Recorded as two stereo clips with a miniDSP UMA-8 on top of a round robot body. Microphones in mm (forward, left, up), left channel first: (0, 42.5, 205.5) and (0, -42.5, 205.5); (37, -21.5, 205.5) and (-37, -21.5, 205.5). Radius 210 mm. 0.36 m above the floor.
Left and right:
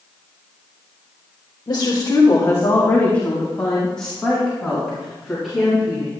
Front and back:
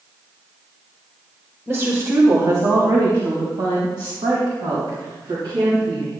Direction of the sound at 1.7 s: 120° left.